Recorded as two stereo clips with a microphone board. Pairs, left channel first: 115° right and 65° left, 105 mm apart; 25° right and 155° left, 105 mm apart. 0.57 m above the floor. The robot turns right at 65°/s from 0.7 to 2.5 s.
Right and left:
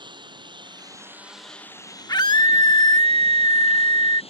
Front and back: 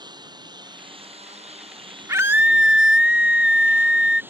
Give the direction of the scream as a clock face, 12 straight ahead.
5 o'clock.